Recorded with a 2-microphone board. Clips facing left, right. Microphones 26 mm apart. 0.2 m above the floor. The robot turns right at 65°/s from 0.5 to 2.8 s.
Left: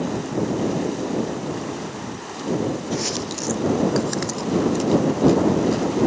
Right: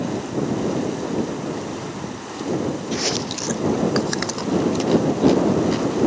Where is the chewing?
20° right (ahead or behind).